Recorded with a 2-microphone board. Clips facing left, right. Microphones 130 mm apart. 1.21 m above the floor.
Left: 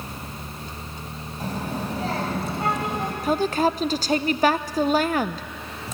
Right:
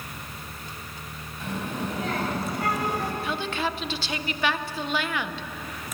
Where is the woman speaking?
40° left (ahead or behind), 0.6 m.